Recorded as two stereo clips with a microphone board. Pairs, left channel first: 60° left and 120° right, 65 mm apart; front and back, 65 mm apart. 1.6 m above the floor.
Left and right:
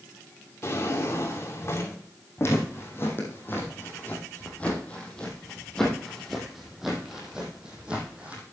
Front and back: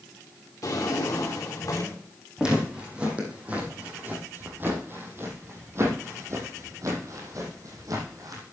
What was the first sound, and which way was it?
A drawer, 20° left.